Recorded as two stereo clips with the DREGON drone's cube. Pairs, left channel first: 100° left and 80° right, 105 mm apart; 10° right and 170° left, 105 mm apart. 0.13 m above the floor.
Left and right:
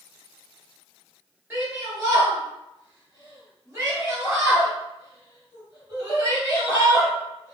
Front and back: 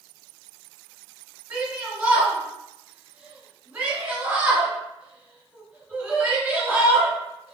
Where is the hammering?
No hammering in this recording.